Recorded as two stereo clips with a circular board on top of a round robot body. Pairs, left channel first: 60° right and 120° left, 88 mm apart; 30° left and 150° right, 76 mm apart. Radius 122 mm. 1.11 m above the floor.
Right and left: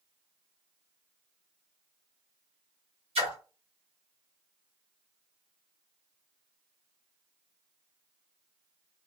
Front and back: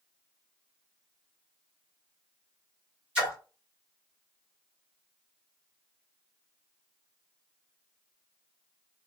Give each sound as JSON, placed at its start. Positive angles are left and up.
{"t": 3.1, "sound": "a splash", "azimuth_deg": 135, "distance_m": 2.0}